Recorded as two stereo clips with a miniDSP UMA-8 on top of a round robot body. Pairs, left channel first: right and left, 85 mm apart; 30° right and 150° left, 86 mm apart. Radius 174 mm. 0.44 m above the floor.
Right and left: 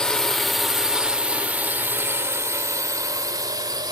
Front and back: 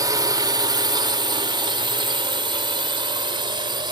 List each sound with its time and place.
0.0 s a drone: 170° right; by 3.9 s 125° left